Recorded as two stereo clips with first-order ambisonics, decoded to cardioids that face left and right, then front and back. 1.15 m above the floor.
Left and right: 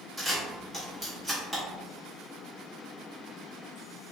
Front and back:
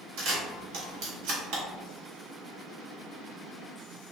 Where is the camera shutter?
165° right, 1.5 m.